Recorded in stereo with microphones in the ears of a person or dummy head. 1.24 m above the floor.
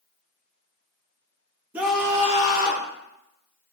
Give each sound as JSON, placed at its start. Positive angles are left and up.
{"t": 1.7, "sound": "a scream", "side_deg": -10, "distance_m": 0.7}